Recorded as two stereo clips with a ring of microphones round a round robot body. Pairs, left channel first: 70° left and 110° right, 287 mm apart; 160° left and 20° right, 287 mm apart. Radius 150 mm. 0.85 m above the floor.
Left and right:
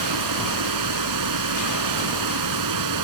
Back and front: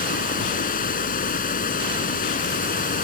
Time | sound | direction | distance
0.0 | running water | 140° right | ?